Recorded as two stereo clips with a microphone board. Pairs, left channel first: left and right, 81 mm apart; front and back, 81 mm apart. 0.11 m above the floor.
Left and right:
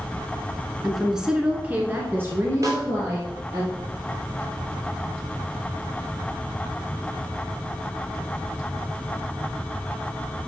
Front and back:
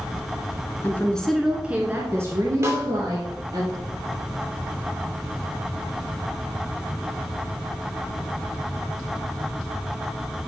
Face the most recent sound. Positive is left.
turn(degrees=-130)